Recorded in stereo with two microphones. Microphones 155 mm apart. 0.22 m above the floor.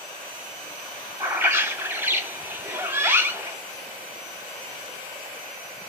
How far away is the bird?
About 1.2 m.